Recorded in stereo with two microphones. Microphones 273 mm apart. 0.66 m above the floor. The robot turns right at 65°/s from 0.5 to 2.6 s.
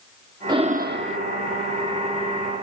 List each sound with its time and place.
0.5 s breathing: 165° right, 0.8 m; by 1.2 s 120° right, 0.8 m